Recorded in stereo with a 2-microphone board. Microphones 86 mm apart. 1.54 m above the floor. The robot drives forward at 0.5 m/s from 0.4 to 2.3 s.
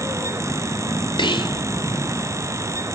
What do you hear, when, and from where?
1.2 s whispering: 75° left (ahead or behind), 1.1 m